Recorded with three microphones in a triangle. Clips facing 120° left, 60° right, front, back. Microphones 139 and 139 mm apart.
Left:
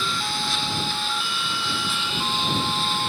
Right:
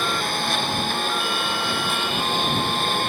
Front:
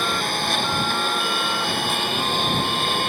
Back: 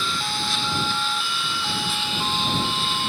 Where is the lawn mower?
30° right.